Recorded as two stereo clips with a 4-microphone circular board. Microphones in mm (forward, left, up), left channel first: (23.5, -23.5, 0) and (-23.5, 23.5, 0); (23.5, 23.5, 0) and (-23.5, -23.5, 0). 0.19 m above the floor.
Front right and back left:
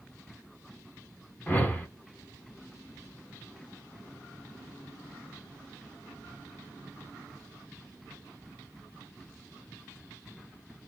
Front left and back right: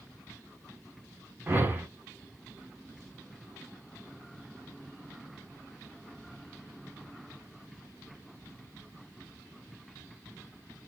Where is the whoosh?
95° right, 0.9 m.